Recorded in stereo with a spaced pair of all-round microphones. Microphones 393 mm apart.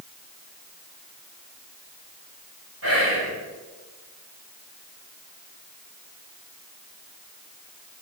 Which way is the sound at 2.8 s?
60° right (ahead or behind).